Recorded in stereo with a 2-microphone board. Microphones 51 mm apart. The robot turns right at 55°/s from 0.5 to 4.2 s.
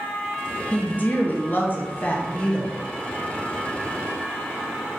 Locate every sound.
0.7 s a woman speaking: 50° left, 0.8 m; by 2.8 s 160° left, 0.8 m